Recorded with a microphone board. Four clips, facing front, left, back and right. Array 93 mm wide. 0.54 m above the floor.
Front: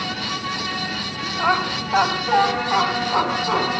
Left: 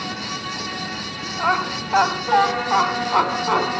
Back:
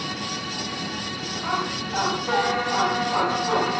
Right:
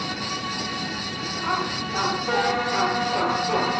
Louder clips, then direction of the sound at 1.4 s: Left 6 dB, front 7 dB; 40° left.